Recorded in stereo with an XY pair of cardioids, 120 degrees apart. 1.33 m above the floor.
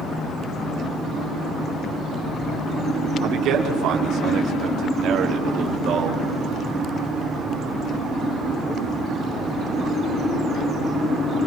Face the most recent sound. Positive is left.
turn(degrees=-55)